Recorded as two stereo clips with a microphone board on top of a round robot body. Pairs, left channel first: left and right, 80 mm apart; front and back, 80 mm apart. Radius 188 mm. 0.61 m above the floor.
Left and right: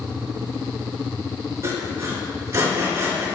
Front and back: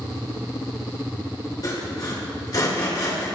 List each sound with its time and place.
1.6 s sawing: 40° right, 5 m